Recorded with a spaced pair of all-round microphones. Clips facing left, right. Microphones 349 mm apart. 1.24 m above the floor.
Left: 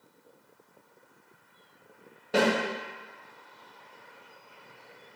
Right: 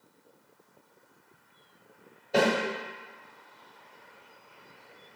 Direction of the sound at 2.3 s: 85° left.